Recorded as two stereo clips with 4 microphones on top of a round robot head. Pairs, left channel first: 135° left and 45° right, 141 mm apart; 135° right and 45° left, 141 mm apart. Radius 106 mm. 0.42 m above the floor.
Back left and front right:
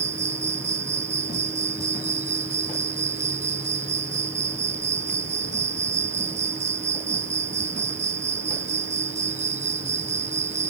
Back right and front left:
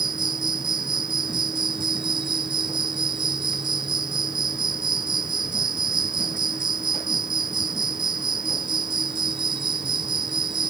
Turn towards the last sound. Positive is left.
turn(degrees=-10)